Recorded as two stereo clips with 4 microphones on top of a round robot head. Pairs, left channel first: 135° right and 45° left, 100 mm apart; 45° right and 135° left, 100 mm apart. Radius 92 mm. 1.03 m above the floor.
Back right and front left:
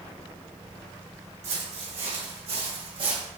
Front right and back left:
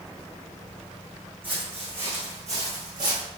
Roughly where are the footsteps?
Ahead left.